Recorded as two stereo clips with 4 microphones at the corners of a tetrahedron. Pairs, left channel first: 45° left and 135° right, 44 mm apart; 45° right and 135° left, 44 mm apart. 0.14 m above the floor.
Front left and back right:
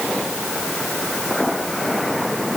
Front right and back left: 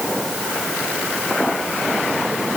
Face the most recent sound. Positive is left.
No sound to turn to.